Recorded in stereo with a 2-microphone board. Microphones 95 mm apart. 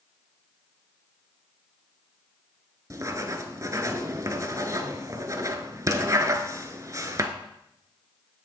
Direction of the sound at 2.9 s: 35° right (ahead or behind).